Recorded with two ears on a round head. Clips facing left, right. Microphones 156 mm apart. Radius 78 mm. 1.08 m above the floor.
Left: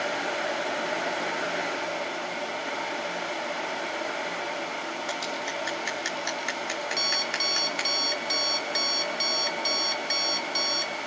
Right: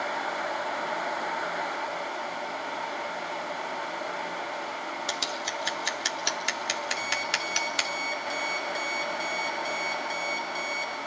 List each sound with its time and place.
5.1 s scissors: 45° right (ahead or behind), 3.5 m
7.0 s an alarm clock: 75° left (ahead or behind), 2.5 m